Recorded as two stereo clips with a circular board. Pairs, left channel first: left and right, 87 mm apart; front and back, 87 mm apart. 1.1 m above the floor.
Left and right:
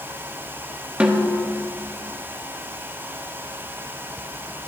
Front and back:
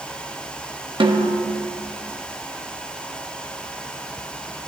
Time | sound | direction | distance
1.0 | a snare drum | 165° right | 1.0 m